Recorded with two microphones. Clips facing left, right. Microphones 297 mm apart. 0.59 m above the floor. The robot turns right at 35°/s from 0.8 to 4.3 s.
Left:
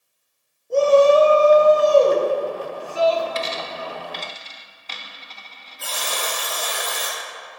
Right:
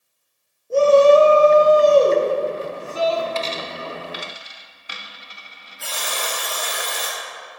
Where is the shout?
10° right (ahead or behind), 1.1 m; by 3.2 s 20° right (ahead or behind), 1.1 m.